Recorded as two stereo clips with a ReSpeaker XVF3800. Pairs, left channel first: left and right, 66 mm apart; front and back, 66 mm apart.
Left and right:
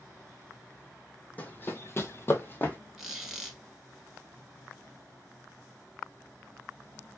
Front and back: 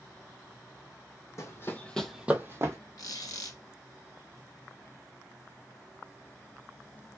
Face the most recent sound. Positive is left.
turn(degrees=0)